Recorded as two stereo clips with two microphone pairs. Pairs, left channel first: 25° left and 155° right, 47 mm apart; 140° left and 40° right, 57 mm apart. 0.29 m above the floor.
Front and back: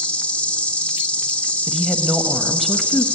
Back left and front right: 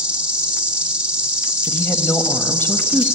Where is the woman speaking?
110° left, 1.1 m.